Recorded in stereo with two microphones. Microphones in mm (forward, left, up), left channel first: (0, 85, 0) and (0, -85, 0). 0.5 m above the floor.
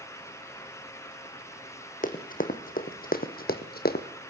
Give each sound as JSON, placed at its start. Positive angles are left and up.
{"t": 2.0, "sound": "running footsteps", "side_deg": 55, "distance_m": 2.0}